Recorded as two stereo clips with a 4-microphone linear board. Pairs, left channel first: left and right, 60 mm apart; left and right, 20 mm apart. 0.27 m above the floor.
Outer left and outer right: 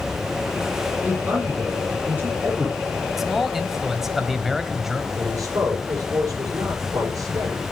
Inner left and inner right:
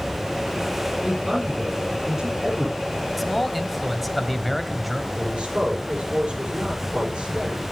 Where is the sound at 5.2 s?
65° right (ahead or behind), 8.5 m.